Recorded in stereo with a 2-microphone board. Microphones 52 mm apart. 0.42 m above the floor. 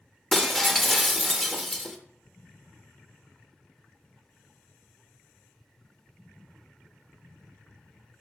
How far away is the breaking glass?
About 0.7 m.